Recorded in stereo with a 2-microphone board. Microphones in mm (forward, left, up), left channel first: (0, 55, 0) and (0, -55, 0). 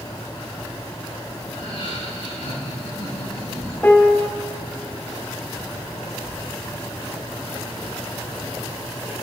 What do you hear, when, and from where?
1.5 s laughter: 80° left, 5 m; by 3.7 s 75° left (ahead or behind), 7 m
3.8 s a piano: 15° left (ahead or behind), 0.8 m